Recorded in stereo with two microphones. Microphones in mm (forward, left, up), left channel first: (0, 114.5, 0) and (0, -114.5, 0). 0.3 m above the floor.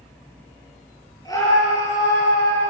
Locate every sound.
1.2 s a scream: 15° left (ahead or behind), 6 m